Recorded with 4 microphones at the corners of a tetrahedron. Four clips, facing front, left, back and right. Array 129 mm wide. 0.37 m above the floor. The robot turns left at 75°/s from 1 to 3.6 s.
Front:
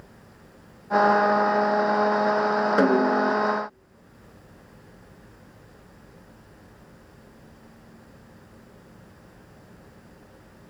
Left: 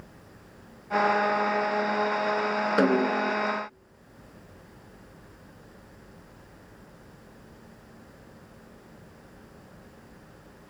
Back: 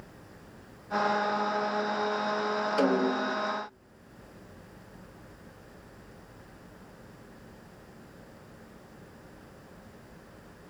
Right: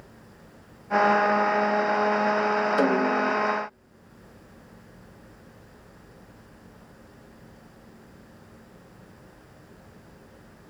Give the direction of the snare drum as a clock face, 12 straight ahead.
11 o'clock.